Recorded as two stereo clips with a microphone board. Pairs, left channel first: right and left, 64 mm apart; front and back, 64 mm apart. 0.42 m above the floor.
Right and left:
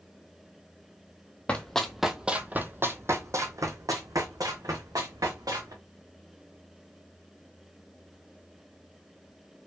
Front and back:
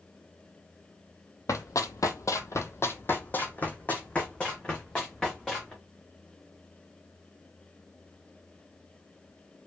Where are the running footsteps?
20° right, 0.7 m; by 5.7 s 80° left, 2 m.